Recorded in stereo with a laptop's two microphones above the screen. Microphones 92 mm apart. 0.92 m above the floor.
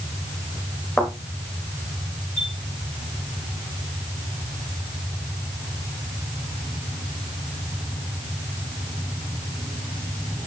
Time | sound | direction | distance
1.0 | a thud | 10° left (ahead or behind) | 3.5 m
2.4 | a chime | 45° right (ahead or behind) | 3.5 m